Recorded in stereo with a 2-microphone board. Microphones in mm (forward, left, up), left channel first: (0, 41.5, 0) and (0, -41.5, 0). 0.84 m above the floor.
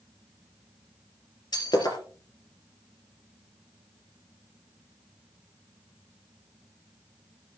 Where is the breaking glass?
55° left (ahead or behind), 4 m.